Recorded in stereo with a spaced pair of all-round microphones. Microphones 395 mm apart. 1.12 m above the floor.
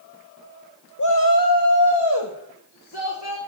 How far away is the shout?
About 1.0 m.